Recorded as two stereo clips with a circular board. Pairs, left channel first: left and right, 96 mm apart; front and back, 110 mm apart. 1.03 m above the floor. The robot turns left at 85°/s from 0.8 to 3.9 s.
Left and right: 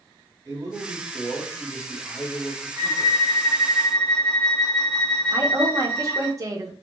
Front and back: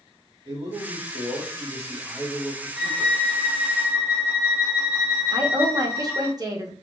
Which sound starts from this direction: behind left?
A violin, at 2.8 s.